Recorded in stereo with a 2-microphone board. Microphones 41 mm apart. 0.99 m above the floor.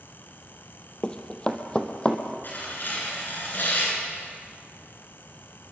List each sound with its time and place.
1.0 s running footsteps: 20° left (ahead or behind), 1.6 m
2.4 s tearing paper: 50° left (ahead or behind), 8.5 m